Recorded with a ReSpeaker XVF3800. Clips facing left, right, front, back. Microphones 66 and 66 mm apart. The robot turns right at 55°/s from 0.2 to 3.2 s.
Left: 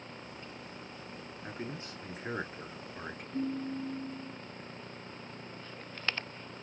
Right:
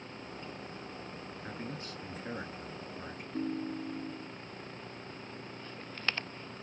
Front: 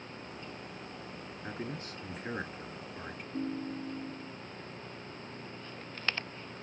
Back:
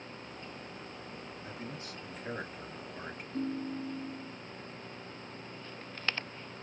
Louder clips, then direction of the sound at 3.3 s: Left 1 dB, back 1 dB; 35° left.